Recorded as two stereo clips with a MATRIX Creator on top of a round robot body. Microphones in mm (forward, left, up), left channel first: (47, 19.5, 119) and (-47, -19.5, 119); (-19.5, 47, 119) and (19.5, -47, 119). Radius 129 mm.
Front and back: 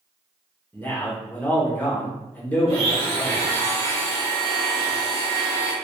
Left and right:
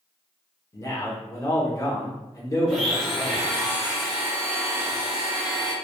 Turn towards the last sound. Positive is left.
turn(degrees=-160)